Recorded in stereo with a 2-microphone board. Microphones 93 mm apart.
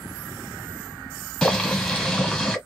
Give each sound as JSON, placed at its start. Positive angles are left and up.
{"t": 1.4, "sound": "boiling", "side_deg": 10, "distance_m": 1.4}